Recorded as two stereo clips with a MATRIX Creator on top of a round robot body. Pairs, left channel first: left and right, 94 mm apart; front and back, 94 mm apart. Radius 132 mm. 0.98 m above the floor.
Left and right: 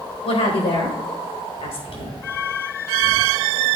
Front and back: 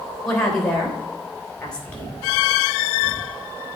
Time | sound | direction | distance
0.2 | a woman speaking | 85° left | 4 m